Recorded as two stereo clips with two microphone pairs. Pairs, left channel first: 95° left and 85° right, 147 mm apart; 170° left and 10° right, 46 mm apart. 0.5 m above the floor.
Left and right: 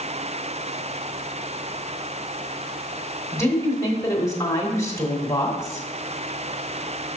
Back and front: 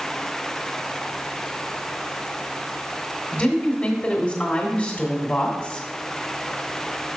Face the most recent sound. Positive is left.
turn(degrees=145)